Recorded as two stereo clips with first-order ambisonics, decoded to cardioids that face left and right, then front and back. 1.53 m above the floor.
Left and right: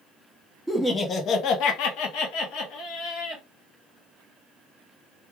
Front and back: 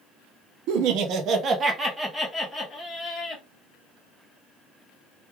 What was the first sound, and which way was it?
Laughter, 175° left.